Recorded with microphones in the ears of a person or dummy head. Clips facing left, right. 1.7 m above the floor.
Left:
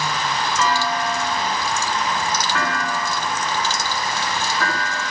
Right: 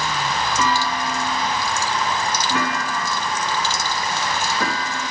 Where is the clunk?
20° right (ahead or behind), 3 m.